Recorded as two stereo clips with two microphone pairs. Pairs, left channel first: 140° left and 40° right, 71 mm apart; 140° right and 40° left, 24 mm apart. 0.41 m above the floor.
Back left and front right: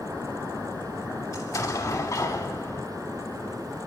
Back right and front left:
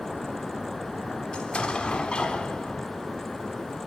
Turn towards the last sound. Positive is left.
turn(degrees=175)